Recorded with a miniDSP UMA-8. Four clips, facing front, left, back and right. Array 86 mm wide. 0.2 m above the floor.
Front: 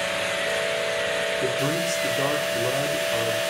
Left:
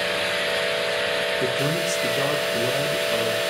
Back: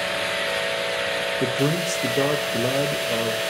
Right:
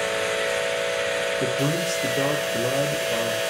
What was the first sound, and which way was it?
A man speaking, 170° right.